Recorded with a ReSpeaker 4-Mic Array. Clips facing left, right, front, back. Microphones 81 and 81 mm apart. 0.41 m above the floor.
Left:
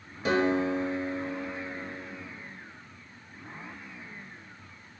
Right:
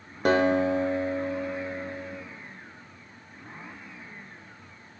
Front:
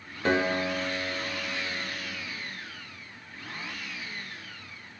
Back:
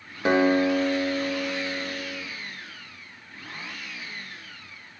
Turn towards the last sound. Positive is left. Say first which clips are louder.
# right 4 dB, back 6 dB
turn(degrees=-110)